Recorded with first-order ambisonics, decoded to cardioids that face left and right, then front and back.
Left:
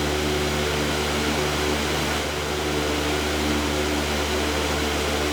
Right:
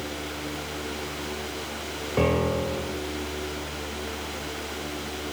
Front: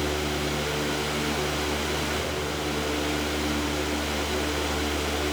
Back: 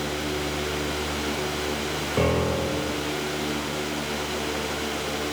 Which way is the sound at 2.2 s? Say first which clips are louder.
Right 1 dB, back 5 dB; 130° right.